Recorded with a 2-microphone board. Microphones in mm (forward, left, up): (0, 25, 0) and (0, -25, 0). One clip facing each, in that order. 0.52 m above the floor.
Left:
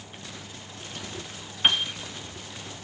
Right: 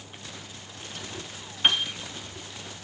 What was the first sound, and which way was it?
A piano, 5° left (ahead or behind).